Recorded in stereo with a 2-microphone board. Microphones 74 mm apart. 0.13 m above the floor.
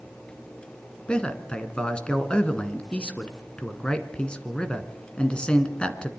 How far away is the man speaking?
About 1.7 m.